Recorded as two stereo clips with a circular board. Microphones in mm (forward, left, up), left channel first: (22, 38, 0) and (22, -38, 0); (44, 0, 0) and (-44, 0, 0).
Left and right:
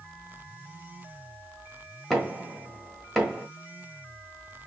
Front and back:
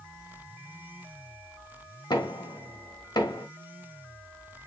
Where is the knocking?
Straight ahead, 1.4 m.